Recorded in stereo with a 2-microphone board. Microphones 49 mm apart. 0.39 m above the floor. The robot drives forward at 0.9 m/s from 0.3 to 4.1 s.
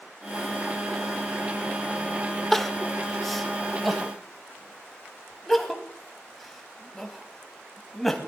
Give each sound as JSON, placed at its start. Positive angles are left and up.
{"t": 2.5, "sound": "crying", "side_deg": 5, "distance_m": 0.8}